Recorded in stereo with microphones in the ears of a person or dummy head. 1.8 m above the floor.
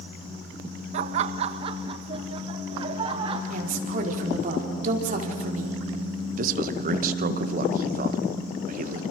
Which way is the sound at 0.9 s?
45° right (ahead or behind).